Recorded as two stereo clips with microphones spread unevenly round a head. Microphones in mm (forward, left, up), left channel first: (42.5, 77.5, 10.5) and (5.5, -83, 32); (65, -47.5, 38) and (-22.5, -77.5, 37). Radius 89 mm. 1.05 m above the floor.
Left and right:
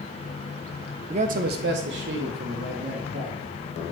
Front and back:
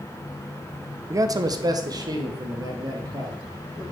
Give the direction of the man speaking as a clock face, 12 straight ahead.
5 o'clock.